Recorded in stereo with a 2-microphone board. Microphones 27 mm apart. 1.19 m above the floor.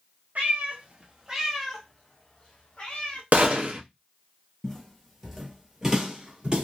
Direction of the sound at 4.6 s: 10° left (ahead or behind).